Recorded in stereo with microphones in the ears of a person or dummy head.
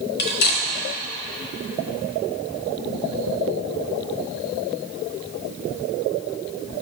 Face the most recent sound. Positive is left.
turn(degrees=50)  # may be behind; listen again after turning